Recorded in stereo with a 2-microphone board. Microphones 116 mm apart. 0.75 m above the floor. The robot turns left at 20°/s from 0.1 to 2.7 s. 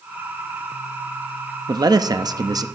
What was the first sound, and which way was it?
A man speaking, 35° right (ahead or behind).